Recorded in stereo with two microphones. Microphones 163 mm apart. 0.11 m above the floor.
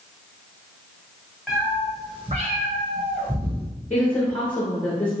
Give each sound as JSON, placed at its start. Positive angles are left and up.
{"t": 1.5, "sound": "a cat meowing", "side_deg": -5, "distance_m": 1.2}
{"t": 3.9, "sound": "a woman speaking", "side_deg": 10, "distance_m": 1.5}